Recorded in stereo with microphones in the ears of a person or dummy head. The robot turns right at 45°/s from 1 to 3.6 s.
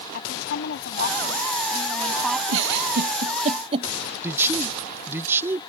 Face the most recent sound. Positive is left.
turn(degrees=-15)  # may be behind; listen again after turning